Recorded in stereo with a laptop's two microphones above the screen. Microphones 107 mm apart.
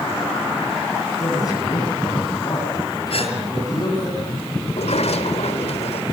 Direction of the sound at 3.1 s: 60° left (ahead or behind).